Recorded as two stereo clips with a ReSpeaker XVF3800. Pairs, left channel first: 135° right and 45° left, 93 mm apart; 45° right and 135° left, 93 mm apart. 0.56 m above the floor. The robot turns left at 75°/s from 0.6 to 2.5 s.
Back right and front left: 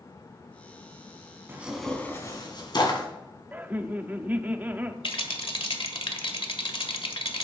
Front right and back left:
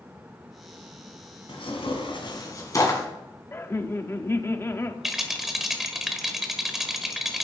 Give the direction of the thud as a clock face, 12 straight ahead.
I don't hear a thud.